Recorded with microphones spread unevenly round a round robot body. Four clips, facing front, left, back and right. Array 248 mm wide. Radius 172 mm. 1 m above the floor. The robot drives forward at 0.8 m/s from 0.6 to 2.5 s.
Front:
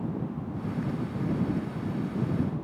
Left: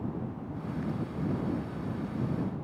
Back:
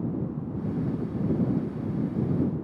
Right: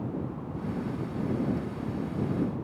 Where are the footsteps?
No footsteps in this recording.